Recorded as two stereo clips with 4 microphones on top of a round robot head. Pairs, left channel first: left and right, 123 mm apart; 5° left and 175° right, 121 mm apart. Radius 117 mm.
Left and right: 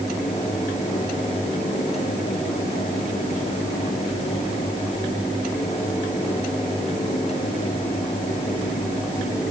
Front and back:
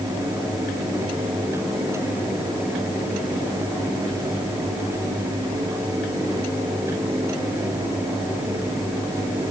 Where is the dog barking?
No dog barking in this recording.